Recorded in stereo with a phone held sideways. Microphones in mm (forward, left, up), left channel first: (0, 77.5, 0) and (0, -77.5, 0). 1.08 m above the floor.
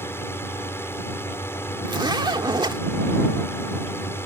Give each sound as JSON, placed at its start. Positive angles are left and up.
{"t": 0.0, "sound": "a drone", "side_deg": 15}
{"t": 1.9, "sound": "a zipper", "side_deg": -30}